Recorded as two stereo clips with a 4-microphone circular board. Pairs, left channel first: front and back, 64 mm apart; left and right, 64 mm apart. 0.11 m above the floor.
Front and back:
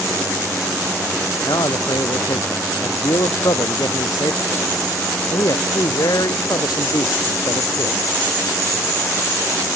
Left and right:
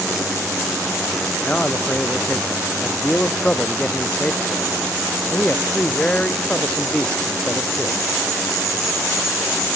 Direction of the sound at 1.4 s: 15° left.